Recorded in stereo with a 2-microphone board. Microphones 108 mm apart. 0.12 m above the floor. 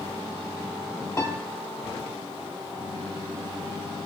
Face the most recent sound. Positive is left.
turn(degrees=25)  # may be behind; listen again after turning